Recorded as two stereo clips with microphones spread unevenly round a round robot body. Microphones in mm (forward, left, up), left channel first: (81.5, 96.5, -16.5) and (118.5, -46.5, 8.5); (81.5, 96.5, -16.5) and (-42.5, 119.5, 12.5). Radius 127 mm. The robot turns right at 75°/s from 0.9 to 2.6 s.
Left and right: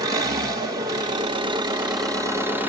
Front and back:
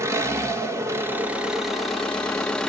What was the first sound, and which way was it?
An engine running, 120° right.